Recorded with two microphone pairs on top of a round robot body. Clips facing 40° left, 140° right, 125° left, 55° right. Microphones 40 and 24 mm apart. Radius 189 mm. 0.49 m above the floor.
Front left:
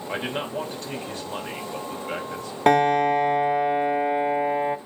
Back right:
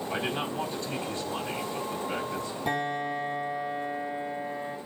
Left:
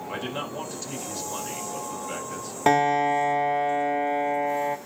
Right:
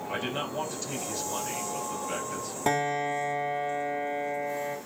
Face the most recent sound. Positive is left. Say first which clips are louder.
# front left 13 dB, left 7 dB
turn(degrees=50)